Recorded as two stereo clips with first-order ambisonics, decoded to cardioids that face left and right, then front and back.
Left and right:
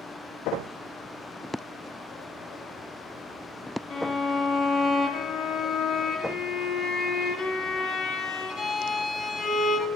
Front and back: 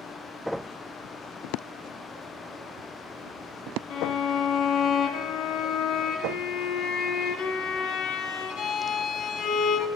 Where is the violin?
30° left, 1.7 m.